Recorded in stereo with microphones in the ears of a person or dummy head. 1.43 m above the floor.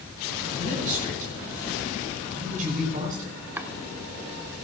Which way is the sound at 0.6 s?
45° right (ahead or behind).